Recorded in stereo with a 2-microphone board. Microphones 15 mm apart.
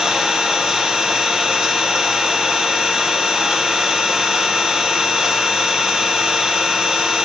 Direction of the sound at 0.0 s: 40° right (ahead or behind).